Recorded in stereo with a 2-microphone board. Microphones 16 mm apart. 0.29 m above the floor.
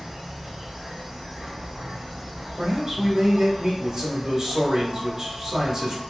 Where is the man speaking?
30° right (ahead or behind), 1.1 m.